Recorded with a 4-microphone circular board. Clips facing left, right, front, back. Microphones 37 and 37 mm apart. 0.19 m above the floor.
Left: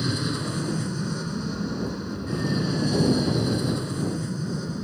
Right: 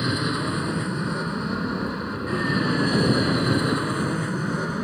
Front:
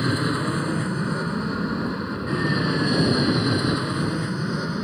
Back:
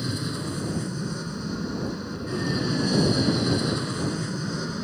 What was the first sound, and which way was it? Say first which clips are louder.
An aircraft: right 3 dB, front 7 dB; 30° right.